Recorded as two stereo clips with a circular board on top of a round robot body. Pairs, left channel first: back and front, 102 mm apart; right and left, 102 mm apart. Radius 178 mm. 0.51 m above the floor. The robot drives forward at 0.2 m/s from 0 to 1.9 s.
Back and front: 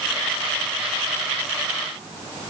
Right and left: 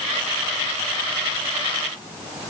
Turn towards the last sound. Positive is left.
No sound to turn to.